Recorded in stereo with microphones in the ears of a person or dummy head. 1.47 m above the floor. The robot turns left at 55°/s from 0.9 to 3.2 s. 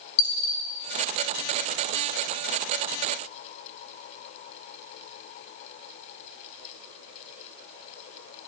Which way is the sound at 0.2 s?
45° left (ahead or behind).